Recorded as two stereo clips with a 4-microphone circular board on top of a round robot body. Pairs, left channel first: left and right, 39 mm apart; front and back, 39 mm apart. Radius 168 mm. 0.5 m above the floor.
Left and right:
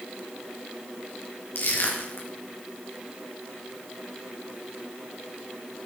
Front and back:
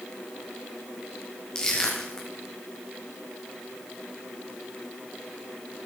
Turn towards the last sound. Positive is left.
turn(degrees=75)